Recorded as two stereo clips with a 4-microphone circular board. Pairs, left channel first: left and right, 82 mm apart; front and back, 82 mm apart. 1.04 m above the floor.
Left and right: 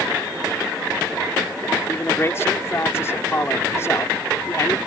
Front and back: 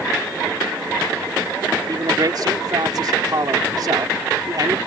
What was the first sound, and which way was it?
A man speaking, 145° left.